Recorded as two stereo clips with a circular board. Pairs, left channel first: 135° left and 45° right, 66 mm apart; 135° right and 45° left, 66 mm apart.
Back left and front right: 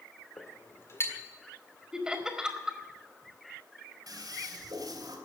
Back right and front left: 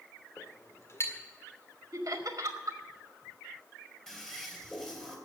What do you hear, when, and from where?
0.4 s a clink: straight behind, 1.8 m
1.9 s laughter: 30° left, 1.9 m
4.1 s a toilet flushing: 50° right, 3 m